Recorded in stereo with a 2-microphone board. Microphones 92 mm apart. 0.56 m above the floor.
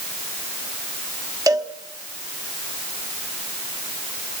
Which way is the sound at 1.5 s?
45° right (ahead or behind).